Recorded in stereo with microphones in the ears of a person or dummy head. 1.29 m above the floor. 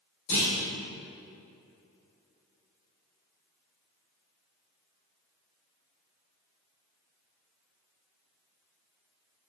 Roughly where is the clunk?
Left.